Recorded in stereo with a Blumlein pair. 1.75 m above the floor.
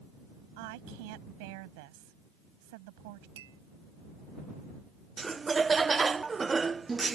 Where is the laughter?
15° right.